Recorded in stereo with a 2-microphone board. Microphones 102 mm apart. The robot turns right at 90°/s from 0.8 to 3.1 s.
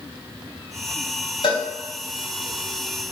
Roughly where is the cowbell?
Left.